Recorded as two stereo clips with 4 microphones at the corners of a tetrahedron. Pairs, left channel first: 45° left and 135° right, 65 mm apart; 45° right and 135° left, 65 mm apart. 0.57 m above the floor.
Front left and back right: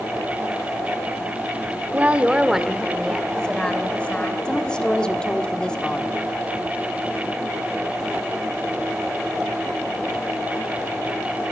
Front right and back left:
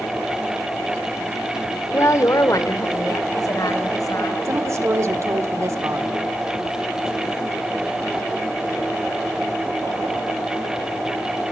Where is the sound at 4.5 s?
115° left, 1.5 m.